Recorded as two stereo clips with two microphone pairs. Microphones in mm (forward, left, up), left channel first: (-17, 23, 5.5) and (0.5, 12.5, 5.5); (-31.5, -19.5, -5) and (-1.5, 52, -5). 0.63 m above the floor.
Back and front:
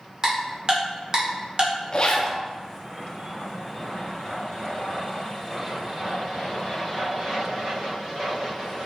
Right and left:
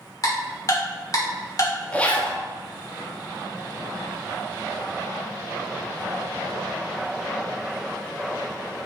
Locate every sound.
0.2 s ticking: 80° right, 1.2 m
1.9 s a zipper: straight behind, 0.7 m